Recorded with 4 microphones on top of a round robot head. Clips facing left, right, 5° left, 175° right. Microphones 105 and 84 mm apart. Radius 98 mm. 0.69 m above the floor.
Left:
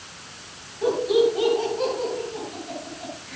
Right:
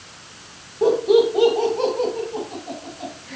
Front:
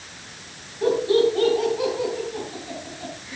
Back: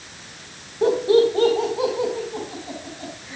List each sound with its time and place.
0.8 s laughter: 120° right, 3 m; by 3.4 s 115° right, 4.5 m